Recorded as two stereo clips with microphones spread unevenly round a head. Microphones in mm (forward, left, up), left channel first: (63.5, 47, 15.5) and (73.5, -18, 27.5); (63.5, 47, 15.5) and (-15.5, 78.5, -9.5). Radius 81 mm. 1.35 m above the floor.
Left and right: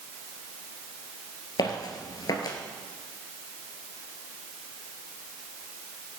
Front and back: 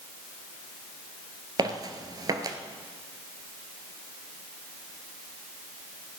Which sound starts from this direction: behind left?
Footsteps, at 1.6 s.